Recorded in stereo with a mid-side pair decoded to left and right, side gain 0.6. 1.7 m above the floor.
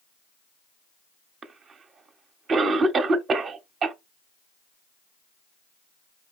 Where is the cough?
40° right, 1.0 m.